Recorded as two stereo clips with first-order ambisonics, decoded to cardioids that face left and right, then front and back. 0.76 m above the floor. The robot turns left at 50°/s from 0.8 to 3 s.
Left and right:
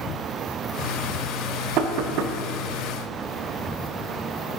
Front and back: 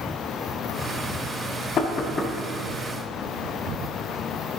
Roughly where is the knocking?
Ahead right.